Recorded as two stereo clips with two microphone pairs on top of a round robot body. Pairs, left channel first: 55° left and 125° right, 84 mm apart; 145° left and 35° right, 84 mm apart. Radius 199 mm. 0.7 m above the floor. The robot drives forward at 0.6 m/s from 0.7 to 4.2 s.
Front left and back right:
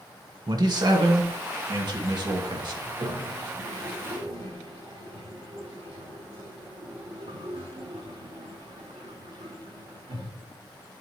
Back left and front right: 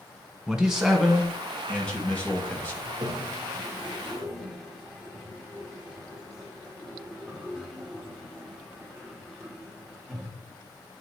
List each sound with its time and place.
0.5 s a man speaking: 120° right, 1.4 m; by 2.9 s 155° right, 2.5 m
2.9 s a toilet flushing: 80° right, 1.0 m; by 10.3 s 125° right, 1.2 m